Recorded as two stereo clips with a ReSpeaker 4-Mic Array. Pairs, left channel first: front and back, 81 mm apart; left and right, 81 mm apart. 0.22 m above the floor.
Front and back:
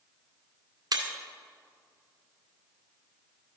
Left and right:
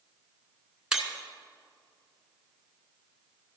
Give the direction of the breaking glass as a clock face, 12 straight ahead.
6 o'clock.